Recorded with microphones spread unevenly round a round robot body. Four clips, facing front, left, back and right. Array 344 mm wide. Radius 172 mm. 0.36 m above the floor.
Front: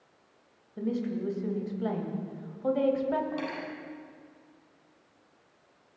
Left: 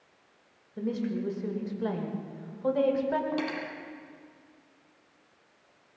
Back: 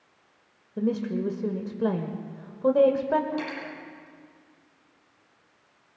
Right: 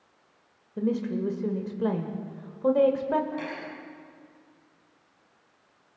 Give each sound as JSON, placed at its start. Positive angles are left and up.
{"t": 0.8, "sound": "a woman speaking", "azimuth_deg": -145, "distance_m": 1.9}
{"t": 3.3, "sound": "cutlery clinking", "azimuth_deg": 95, "distance_m": 6.5}